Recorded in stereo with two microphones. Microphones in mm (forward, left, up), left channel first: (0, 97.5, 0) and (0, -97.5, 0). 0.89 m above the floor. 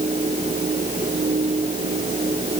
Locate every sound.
Only background noise.